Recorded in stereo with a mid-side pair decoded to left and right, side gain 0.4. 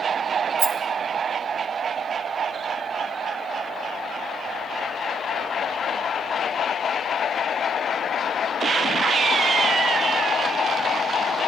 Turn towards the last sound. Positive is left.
turn(degrees=-60)